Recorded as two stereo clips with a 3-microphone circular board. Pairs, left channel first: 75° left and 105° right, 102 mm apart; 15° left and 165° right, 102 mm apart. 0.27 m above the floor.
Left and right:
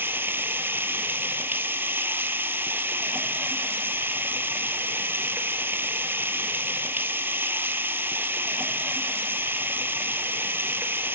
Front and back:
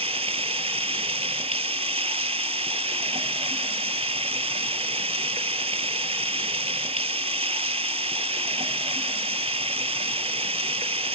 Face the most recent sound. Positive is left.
turn(degrees=-175)